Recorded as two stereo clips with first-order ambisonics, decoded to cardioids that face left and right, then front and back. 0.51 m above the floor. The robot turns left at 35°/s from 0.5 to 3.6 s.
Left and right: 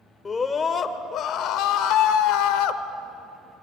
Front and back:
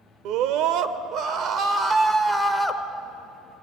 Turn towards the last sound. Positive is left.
turn(degrees=55)